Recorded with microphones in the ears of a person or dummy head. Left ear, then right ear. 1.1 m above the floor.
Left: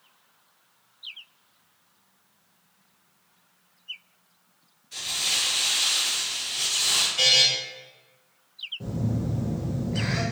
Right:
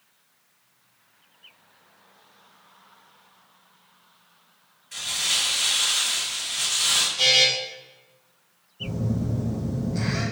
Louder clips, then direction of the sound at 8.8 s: Right 2 dB; 30° left (ahead or behind).